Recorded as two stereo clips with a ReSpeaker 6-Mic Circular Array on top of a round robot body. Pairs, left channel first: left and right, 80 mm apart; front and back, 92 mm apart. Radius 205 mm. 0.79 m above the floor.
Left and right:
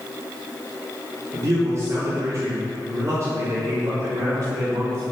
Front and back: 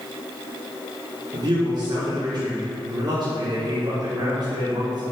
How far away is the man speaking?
About 3 m.